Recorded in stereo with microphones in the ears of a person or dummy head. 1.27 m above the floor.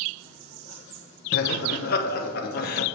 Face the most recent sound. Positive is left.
turn(degrees=50)  # may be behind; listen again after turning